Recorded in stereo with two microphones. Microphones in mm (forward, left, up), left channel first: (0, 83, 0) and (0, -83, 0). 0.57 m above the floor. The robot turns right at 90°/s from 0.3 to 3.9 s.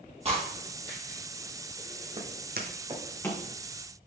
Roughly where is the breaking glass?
Right.